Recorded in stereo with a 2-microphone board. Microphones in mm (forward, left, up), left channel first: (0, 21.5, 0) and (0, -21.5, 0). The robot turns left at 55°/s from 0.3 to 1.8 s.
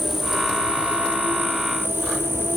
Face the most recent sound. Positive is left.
turn(degrees=-85)